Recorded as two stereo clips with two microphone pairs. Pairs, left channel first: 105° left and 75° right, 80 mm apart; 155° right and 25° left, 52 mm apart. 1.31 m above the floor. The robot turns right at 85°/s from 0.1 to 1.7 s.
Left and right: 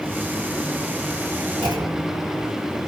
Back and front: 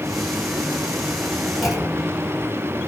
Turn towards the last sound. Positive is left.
turn(degrees=-55)